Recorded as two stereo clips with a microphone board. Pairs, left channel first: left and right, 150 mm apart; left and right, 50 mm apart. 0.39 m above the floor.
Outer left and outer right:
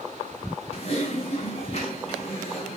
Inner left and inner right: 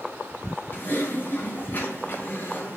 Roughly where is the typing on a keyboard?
Left.